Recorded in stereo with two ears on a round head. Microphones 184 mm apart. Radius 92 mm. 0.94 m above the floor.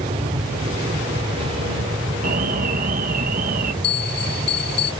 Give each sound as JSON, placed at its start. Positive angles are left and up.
{"t": 0.0, "sound": "an aircraft", "side_deg": -30}
{"t": 2.2, "sound": "an alarm", "side_deg": -40}
{"t": 3.8, "sound": "a bell", "side_deg": 55}